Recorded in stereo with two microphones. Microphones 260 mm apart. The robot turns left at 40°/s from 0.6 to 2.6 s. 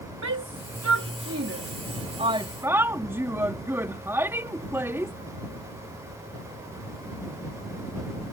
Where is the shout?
85° right; by 5.1 s 10° right (ahead or behind).